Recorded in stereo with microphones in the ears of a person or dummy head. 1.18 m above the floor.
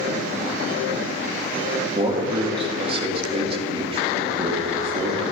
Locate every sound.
1.9 s a man speaking: 25° right (ahead or behind), 1.7 m